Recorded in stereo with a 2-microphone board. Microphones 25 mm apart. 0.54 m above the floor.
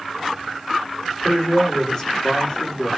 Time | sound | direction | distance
1.2 | a man speaking | 25° left (ahead or behind) | 1.9 m